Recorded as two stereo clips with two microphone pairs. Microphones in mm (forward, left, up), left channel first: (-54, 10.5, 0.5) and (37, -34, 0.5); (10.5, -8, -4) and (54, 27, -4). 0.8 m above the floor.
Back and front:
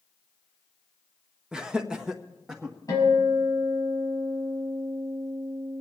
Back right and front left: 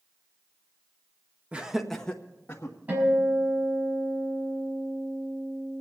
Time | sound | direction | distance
1.5 | laughter | 45° left | 1.1 m
2.9 | a guitar | 100° left | 5.5 m